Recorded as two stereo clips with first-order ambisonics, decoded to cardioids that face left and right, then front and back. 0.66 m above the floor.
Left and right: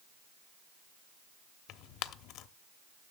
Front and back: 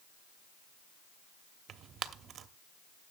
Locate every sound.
1.7 s tearing paper: 125° left, 0.7 m